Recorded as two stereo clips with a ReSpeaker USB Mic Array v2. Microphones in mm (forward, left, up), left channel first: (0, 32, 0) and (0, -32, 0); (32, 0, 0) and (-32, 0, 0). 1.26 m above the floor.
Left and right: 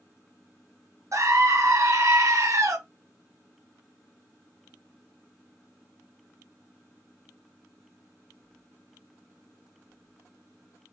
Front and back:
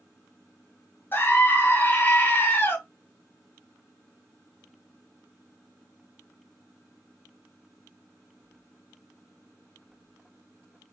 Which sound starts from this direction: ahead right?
A scream, at 1.1 s.